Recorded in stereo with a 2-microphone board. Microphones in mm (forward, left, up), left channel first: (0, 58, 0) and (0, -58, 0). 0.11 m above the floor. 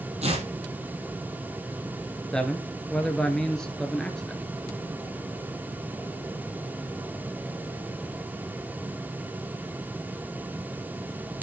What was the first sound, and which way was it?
Tearing paper, 65° right (ahead or behind).